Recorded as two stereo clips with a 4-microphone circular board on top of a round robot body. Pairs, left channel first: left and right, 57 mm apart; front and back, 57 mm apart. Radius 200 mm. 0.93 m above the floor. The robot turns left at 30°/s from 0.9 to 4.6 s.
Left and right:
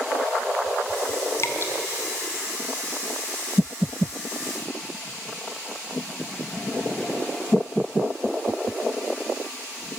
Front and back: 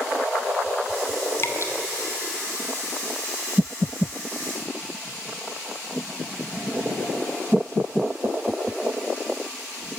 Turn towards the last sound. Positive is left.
turn(degrees=-50)